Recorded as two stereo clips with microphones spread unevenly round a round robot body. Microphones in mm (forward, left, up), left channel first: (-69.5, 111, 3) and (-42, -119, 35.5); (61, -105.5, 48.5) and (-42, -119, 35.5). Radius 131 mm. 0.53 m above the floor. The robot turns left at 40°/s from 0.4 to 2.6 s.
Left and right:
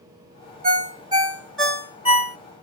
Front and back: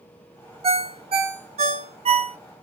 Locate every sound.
0.6 s a ringtone: 140° right, 1.1 m; by 2.4 s 150° left, 1.1 m